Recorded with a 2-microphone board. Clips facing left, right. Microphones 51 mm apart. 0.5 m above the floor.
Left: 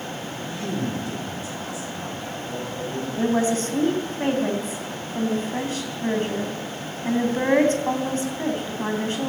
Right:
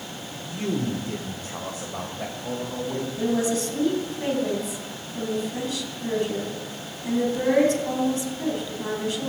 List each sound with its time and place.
0.4 s a man speaking: 15° right (ahead or behind), 1.6 m; by 3.1 s 70° right (ahead or behind), 3 m
3.2 s a woman speaking: 40° left (ahead or behind), 3 m